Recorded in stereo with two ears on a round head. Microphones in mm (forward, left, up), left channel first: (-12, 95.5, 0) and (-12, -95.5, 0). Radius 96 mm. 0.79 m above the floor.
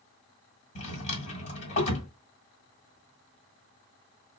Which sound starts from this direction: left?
A drawer, at 0.8 s.